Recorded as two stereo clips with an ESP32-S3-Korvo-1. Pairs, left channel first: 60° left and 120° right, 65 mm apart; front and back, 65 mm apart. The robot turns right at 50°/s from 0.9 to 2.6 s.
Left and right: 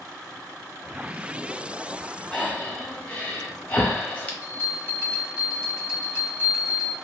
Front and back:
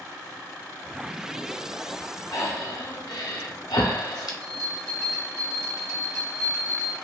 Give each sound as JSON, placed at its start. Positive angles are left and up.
{"t": 2.3, "sound": "breathing", "azimuth_deg": -25, "distance_m": 0.6}
{"t": 4.4, "sound": "a bell", "azimuth_deg": 175, "distance_m": 1.7}